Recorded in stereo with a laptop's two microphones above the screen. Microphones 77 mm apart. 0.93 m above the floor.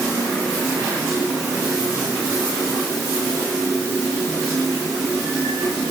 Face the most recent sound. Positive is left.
No sound to turn to.